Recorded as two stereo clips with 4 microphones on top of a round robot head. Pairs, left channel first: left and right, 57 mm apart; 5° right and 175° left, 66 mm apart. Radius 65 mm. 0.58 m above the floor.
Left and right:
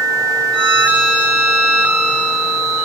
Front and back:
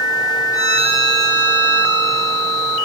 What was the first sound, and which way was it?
A violin, 15° left.